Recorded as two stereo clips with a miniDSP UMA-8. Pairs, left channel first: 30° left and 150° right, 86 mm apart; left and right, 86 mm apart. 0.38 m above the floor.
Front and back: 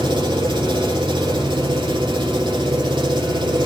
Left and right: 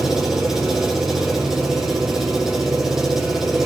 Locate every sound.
0.0 s an engine running: 175° right, 4.5 m